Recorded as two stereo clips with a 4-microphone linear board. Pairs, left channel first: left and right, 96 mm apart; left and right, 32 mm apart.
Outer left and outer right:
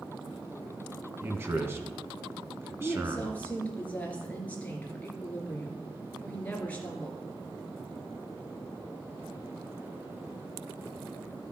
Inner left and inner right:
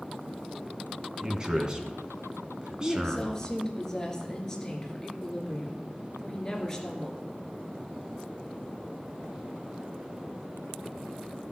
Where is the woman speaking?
15° left (ahead or behind), 2.5 m.